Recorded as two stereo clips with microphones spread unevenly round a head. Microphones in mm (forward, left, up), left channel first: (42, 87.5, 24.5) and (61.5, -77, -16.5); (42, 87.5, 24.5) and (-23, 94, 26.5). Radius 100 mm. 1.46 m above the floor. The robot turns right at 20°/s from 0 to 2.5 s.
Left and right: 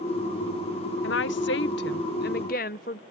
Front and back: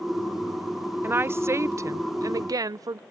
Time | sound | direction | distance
1.0 | a woman speaking | 115° left | ?